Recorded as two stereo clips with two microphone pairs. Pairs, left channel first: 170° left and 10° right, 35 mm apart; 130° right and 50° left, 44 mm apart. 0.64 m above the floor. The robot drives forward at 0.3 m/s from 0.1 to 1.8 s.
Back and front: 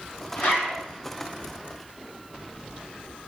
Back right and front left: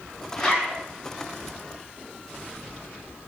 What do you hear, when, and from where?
0.4 s a zipper: 140° left, 5.5 m